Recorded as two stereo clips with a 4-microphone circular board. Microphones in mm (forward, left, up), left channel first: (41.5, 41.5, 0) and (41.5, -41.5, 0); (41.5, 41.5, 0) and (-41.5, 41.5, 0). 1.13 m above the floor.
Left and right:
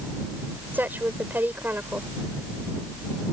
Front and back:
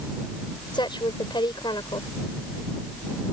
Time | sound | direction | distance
0.7 | a woman speaking | 20° right | ?